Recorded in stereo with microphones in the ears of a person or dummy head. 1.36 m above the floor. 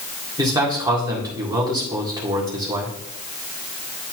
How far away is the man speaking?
About 1.8 m.